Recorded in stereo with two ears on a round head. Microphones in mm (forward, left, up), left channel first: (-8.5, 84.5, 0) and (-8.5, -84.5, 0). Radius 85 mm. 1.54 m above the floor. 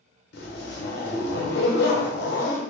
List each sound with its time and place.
0.3 s a zipper: 60° left (ahead or behind), 0.8 m